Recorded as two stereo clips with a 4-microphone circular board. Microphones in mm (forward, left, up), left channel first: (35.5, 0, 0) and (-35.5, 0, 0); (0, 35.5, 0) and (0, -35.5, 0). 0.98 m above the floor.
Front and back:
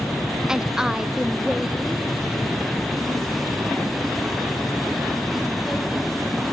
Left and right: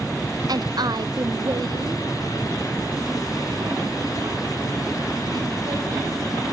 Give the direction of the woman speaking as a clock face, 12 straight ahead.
3 o'clock.